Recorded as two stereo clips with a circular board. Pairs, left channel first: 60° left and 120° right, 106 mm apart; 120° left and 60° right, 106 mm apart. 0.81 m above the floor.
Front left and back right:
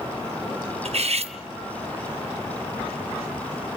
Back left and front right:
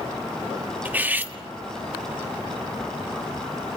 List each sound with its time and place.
0.8 s cutlery clinking: 130° right, 0.8 m